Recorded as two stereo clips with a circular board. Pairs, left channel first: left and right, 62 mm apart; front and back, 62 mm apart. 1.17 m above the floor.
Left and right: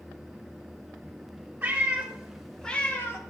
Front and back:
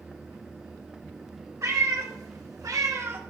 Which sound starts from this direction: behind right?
A cat meowing, at 1.6 s.